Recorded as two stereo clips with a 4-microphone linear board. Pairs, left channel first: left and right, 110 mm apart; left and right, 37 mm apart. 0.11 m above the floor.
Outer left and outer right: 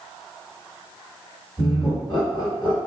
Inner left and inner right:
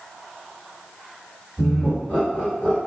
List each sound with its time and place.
1.6 s laughter: 30° left (ahead or behind), 2.0 m